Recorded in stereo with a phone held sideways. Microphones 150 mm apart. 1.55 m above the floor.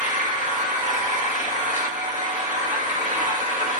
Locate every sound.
0.0 s an engine running: 55° right (ahead or behind), 1.3 m